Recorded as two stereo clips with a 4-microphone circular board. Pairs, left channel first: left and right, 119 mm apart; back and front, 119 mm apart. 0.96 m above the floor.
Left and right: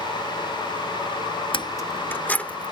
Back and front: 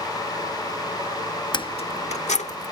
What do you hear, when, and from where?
1.5 s keys jangling: 135° left; by 2.7 s 170° left